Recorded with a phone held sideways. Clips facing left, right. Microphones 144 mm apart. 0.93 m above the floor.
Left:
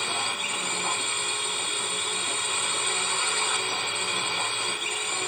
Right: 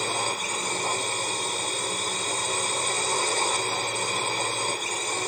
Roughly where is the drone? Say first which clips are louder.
Right 4 dB; right.